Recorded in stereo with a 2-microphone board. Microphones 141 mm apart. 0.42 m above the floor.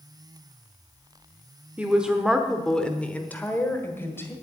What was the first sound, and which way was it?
A woman speaking, 10° right (ahead or behind).